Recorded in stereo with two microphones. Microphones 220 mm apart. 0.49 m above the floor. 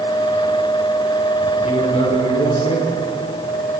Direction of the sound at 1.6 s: 30° left (ahead or behind).